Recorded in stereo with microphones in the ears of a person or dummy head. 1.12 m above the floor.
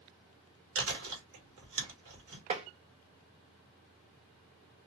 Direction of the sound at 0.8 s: 80° right.